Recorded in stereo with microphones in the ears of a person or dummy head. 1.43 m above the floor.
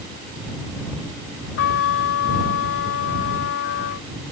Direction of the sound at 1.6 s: 70° left (ahead or behind).